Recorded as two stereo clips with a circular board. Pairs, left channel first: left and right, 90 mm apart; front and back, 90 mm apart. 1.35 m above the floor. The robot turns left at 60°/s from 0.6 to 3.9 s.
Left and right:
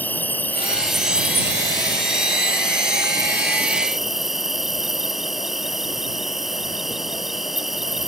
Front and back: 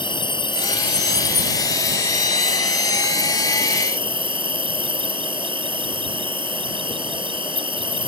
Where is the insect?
20° left; by 8.1 s 175° right.